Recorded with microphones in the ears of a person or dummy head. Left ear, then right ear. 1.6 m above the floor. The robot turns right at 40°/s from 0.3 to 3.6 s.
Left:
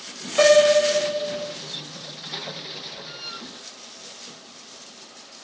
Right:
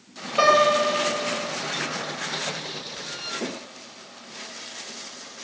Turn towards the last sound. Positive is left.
turn(degrees=-70)